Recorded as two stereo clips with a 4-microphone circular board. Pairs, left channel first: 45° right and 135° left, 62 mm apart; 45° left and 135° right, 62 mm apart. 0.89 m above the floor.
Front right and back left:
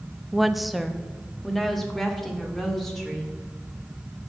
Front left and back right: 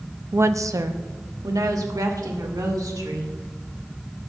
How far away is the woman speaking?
About 0.5 m.